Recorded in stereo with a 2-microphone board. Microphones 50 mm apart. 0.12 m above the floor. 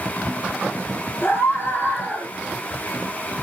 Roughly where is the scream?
Left.